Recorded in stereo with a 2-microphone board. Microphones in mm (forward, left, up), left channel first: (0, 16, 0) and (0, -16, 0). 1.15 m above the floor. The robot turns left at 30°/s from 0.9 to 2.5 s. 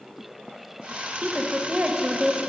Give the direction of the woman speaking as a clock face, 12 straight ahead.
4 o'clock.